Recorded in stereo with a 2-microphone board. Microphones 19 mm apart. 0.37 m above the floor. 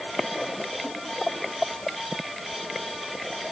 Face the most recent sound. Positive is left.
No sound to turn to.